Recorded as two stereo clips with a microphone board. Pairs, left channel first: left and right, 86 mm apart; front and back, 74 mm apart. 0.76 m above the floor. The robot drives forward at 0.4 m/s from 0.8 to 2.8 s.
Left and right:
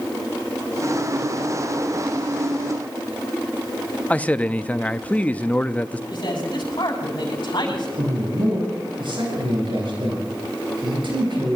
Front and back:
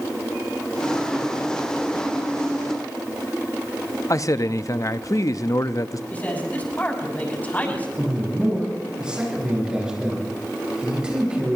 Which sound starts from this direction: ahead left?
A man speaking, at 6.1 s.